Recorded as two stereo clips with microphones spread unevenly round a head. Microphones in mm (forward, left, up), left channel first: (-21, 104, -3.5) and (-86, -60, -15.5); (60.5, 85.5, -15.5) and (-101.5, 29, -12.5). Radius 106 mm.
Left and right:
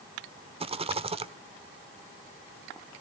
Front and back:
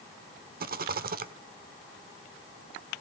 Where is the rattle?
165° right, 1.0 m.